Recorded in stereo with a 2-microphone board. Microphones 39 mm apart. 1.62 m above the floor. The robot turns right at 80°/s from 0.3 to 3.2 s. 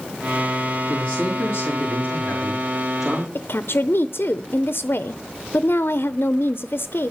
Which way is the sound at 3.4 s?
70° left (ahead or behind).